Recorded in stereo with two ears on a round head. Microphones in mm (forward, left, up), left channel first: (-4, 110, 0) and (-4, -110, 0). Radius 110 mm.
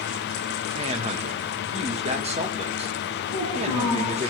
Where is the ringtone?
I don't hear a ringtone.